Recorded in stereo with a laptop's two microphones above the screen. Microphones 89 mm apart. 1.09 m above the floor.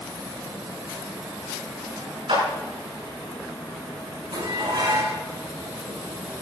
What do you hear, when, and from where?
2.3 s a clap: 85° right, 9 m
4.3 s dishes clattering: 85° right, 7 m